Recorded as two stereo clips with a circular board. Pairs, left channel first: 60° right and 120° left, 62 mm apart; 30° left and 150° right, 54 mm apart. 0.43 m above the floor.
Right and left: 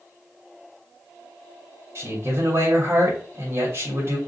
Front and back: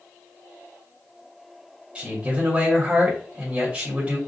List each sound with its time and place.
1.9 s a man speaking: 145° left, 2 m